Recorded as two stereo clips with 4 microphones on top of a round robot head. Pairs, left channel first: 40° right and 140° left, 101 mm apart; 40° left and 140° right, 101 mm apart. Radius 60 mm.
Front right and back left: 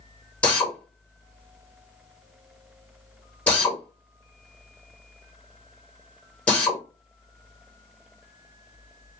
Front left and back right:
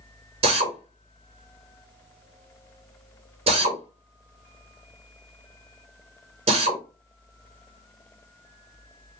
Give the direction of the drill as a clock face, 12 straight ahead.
4 o'clock.